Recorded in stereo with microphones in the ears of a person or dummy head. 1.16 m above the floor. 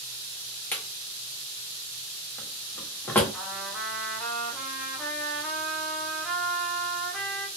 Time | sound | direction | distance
0.7 | a drawer | 10° left (ahead or behind) | 0.7 m
3.3 | a trumpet | centre (ahead or behind) | 0.8 m